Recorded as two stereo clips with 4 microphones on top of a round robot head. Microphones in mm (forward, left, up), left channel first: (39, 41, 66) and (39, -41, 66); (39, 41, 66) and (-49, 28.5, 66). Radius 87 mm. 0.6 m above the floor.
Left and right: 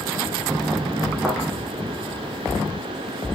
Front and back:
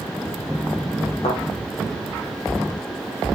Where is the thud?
5° right, 10 m.